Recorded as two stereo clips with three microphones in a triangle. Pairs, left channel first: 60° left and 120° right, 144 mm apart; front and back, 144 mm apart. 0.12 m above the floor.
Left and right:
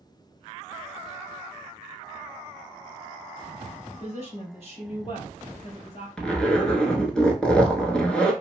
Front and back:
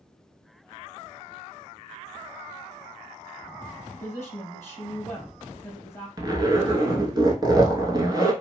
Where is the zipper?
140° left, 0.7 m.